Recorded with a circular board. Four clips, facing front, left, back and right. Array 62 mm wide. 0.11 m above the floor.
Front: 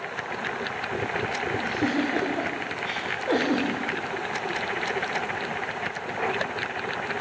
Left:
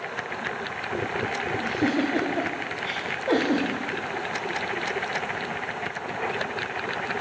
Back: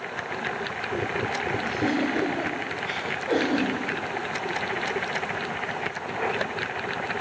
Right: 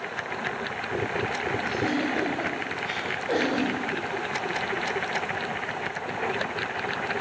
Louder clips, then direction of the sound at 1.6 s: Left 4 dB, even; 75° left.